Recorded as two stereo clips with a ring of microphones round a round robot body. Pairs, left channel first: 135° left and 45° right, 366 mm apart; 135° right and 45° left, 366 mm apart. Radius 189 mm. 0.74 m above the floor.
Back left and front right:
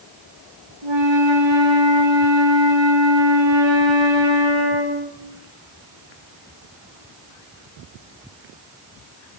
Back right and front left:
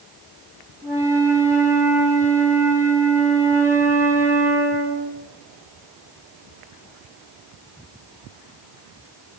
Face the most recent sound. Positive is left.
turn(degrees=-40)